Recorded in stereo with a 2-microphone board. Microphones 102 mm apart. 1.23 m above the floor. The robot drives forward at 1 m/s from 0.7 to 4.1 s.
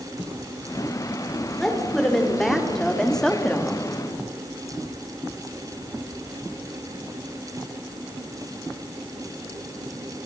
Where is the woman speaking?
5° left (ahead or behind), 4 m.